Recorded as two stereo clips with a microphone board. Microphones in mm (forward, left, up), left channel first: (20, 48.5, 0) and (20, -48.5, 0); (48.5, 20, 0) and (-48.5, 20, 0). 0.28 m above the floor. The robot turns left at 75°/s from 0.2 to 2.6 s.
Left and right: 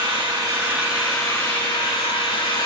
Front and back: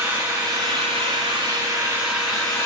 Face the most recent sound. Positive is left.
turn(degrees=65)